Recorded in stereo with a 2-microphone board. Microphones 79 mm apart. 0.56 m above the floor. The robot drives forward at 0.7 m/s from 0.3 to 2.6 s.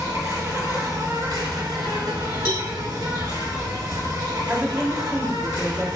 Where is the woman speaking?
15° right (ahead or behind), 1.5 m.